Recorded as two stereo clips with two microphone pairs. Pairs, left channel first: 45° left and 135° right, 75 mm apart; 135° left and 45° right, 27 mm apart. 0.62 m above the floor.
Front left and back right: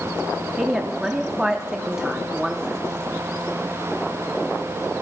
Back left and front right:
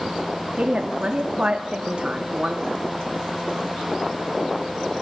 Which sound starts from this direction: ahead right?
A woman speaking, at 0.6 s.